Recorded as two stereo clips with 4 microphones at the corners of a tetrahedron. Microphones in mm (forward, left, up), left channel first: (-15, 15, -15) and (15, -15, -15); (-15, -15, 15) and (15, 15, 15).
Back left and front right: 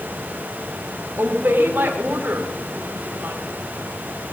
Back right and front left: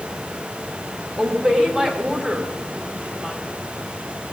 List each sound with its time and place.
1.2 s a woman speaking: 15° right, 3 m